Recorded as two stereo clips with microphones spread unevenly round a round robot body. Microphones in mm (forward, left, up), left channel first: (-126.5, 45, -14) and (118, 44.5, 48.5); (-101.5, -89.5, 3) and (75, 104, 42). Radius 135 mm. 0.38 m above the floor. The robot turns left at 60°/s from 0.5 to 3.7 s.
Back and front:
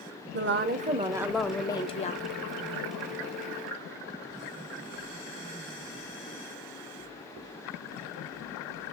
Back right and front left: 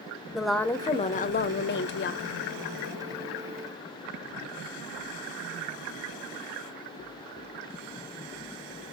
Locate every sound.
0.3 s a woman speaking: 50° right, 1.1 m; by 2.4 s 160° right, 1.1 m